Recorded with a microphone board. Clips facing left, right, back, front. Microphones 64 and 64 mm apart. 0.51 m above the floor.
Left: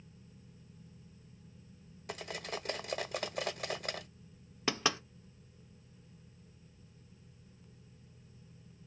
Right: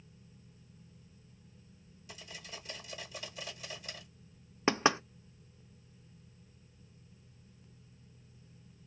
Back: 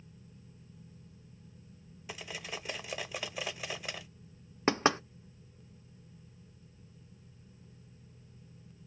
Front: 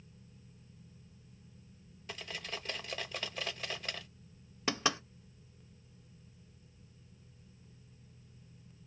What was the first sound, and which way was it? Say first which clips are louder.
Cutlery clinking: left 9 dB, back 1 dB; 100° left.